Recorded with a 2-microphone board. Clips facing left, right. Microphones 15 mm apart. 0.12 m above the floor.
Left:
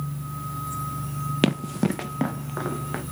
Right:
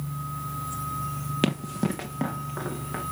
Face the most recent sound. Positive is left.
turn(degrees=15)  # may be behind; listen again after turning